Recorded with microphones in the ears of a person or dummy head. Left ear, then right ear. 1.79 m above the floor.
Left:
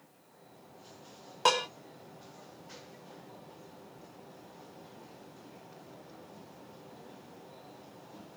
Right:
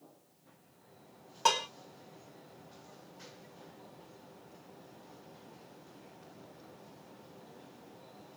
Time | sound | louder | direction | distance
1.4 | dishes clattering | left 2 dB | 5° left (ahead or behind) | 1.0 m